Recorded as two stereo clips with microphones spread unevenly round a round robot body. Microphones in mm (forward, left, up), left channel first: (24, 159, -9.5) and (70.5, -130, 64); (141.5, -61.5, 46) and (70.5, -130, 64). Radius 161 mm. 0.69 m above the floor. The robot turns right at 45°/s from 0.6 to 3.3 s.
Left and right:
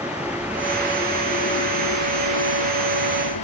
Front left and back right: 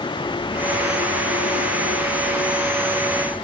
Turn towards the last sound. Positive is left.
turn(degrees=125)